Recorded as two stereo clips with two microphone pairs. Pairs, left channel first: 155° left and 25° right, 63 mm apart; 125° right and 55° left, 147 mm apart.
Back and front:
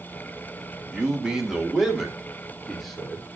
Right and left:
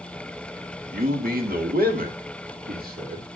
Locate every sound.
0.9 s a man speaking: 50° left, 2 m; by 3.2 s 70° left, 4 m